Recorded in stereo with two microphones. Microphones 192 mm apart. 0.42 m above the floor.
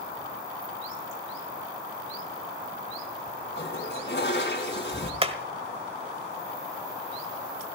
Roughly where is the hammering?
Right.